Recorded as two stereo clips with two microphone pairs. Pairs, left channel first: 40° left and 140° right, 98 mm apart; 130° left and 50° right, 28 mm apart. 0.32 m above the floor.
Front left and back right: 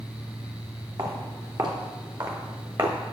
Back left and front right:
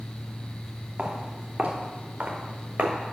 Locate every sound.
1.0 s footsteps: 105° right, 4 m; by 3.0 s 90° right, 3.5 m